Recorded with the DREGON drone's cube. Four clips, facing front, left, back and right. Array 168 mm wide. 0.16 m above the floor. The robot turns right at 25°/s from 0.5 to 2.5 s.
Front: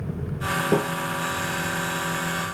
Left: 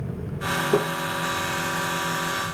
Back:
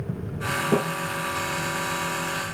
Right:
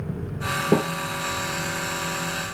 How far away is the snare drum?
About 2.5 m.